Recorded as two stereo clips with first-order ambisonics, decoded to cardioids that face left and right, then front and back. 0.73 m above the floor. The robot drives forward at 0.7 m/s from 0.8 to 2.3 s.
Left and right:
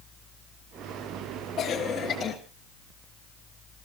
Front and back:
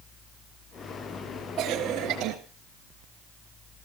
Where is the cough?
135° left, 1.2 m; by 2.4 s 150° left, 1.5 m.